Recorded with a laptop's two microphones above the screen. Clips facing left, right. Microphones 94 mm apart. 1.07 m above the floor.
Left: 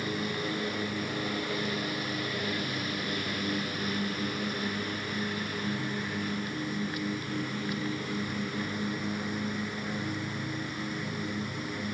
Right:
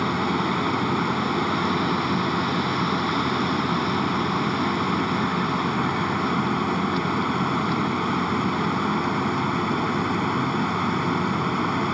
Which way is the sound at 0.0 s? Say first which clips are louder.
Right 10 dB; 70° right (ahead or behind).